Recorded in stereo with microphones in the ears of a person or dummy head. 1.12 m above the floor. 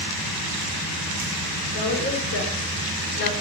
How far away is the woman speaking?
About 4 m.